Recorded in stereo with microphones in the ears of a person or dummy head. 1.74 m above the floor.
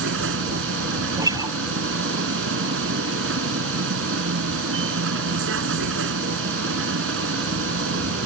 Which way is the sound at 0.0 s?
80° right.